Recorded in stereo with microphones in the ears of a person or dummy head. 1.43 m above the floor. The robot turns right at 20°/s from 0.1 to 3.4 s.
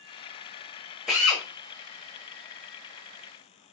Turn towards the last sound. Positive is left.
turn(degrees=-40)  # may be behind; listen again after turning